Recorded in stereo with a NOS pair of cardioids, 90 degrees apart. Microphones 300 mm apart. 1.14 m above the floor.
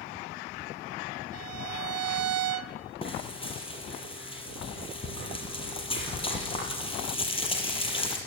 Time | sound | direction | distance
1.3 | a violin | 55° right | 0.9 m
3.0 | frying | 20° left | 6.5 m